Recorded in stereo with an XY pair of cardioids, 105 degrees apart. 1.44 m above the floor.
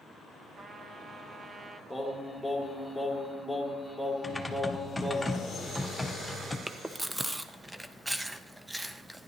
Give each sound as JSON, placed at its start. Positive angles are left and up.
{"t": 0.6, "sound": "a trumpet", "azimuth_deg": -35, "distance_m": 0.9}
{"t": 1.9, "sound": "singing", "azimuth_deg": 5, "distance_m": 1.6}
{"t": 4.2, "sound": "typing on a keyboard", "azimuth_deg": 10, "distance_m": 0.9}
{"t": 6.7, "sound": "chewing", "azimuth_deg": -10, "distance_m": 0.6}